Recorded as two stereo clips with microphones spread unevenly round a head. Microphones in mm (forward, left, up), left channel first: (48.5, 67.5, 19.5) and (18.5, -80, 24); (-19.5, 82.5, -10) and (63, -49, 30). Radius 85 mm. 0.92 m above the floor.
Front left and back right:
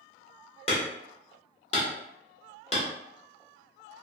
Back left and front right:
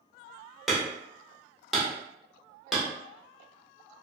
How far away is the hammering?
About 1.2 m.